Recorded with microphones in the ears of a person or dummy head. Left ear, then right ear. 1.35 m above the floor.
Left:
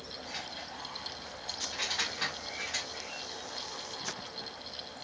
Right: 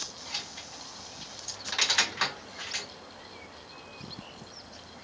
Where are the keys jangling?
30° right (ahead or behind), 2.5 m; by 2.9 s 10° right (ahead or behind), 1.5 m.